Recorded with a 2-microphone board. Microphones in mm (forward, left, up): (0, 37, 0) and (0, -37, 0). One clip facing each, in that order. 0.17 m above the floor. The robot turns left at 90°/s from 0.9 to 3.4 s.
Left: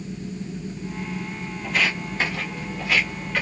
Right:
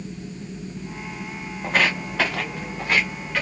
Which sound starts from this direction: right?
Footsteps, at 1.6 s.